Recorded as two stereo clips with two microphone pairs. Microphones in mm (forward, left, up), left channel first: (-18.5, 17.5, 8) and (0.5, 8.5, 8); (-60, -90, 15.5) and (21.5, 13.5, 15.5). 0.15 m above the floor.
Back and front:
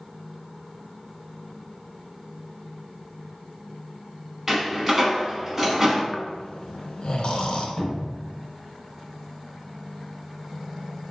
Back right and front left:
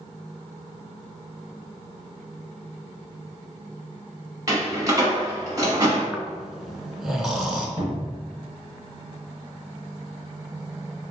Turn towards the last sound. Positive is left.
turn(degrees=-110)